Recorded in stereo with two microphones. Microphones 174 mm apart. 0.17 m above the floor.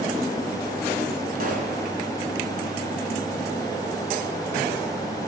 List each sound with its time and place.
1.4 s a pop: 50° right (ahead or behind), 1.9 m